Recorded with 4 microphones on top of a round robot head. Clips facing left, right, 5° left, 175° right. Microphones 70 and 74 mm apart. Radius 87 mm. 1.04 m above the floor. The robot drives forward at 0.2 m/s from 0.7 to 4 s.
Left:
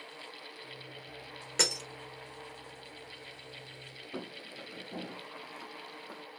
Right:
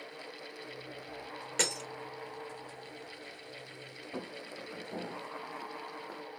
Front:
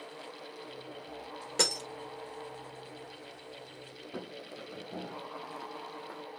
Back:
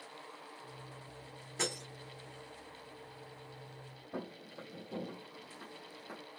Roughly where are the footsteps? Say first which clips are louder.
Right 1 dB, front 1 dB; behind right.